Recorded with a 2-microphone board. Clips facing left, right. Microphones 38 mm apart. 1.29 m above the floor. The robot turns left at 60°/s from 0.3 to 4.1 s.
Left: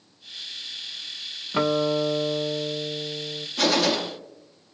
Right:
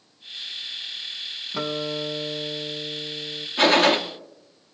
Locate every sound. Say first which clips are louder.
1.5 s a guitar: left 6 dB; 135° left, 0.6 m; by 3.5 s 20° left, 0.6 m
3.6 s a gunshot: right 5 dB; 25° right (ahead or behind), 0.9 m; by 4.0 s 45° right (ahead or behind), 0.9 m